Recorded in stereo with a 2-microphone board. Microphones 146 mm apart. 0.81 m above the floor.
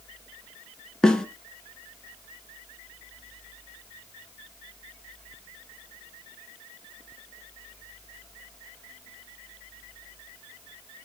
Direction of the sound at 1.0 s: 5° left (ahead or behind).